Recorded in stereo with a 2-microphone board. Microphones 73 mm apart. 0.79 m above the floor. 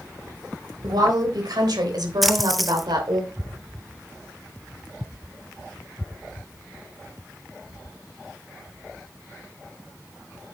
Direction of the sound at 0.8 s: 65° right (ahead or behind).